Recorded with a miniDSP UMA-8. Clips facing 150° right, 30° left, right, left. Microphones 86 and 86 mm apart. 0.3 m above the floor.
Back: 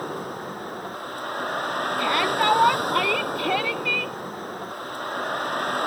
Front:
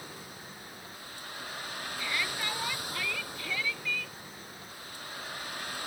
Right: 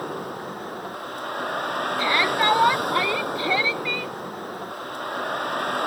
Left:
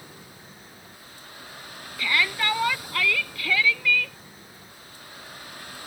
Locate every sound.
0.0 s a vehicle: 115° right
2.0 s a shout: 150° right